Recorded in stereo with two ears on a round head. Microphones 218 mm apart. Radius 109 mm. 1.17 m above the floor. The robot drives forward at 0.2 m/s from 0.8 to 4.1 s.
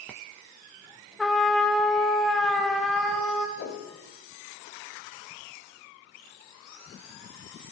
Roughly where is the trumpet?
Centre.